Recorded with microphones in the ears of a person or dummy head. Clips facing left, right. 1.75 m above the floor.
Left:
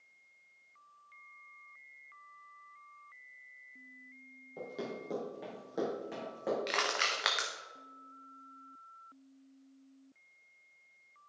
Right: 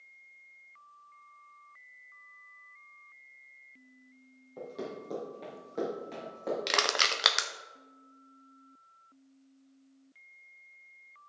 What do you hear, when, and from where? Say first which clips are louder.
4.6 s running footsteps: right 1 dB; 5° left (ahead or behind), 3.5 m
6.7 s crushing: right 3 dB; 50° right (ahead or behind), 0.8 m